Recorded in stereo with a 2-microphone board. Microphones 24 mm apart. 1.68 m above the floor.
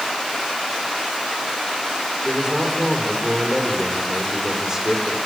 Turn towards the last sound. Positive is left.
turn(degrees=-25)  # may be behind; listen again after turning